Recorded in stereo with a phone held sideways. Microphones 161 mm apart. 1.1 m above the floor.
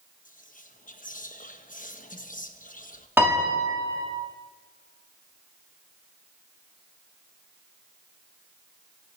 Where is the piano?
15° right (ahead or behind), 2.5 m.